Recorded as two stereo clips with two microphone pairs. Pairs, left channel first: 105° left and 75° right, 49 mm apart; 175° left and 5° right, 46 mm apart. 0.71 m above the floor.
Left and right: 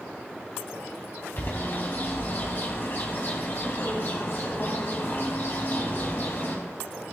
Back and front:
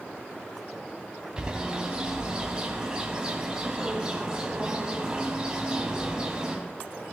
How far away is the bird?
About 3 m.